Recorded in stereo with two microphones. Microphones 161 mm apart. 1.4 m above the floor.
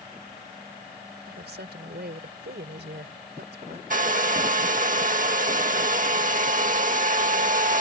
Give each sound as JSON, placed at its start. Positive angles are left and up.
{"t": 1.3, "sound": "a woman speaking", "side_deg": -80}
{"t": 3.9, "sound": "a hair dryer", "side_deg": -50}